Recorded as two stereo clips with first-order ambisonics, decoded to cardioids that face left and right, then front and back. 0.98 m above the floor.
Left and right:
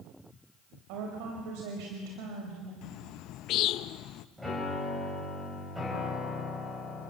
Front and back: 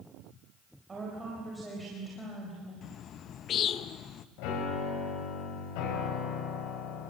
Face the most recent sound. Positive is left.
turn(degrees=0)